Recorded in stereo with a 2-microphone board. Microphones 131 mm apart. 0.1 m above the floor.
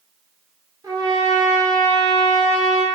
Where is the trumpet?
30° right (ahead or behind), 0.9 m.